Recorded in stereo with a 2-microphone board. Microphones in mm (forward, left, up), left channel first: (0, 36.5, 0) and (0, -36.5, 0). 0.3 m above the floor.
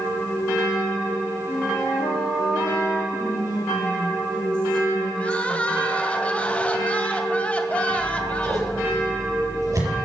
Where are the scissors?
50° right (ahead or behind), 6 m.